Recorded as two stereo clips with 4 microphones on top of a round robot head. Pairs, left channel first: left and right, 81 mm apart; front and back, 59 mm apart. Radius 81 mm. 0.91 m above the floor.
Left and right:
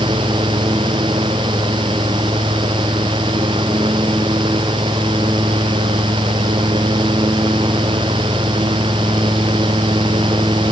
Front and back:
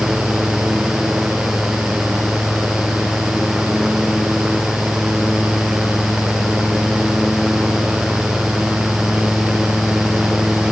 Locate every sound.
Only background noise.